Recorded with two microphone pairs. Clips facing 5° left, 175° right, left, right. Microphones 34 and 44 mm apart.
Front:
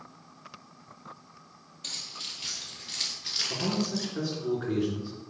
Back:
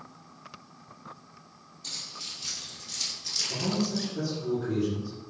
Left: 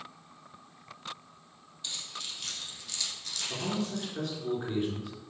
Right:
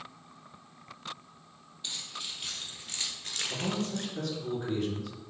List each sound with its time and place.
1.8 s keys jangling: 15° right, 3 m; by 4.1 s 95° right, 1.3 m
3.5 s a man speaking: 20° left, 2.5 m